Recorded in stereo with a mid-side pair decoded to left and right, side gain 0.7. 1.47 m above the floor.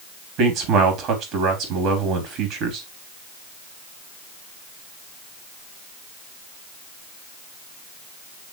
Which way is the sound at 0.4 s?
65° right.